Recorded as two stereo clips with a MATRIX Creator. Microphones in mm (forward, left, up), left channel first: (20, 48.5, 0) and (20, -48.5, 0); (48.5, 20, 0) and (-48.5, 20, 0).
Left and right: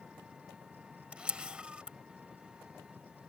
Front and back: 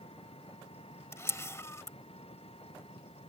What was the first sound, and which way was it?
An engine running, 10° right.